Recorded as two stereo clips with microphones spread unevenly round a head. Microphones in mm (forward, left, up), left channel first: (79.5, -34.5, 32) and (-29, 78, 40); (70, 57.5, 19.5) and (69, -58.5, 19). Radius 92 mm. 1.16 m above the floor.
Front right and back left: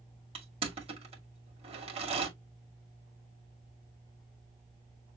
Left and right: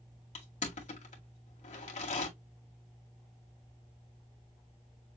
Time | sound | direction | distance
0.3 | crushing | 85° left | 2 m